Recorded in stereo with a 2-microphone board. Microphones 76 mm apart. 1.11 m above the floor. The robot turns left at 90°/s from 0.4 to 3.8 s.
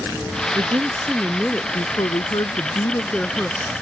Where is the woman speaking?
105° right; by 3.7 s 30° right.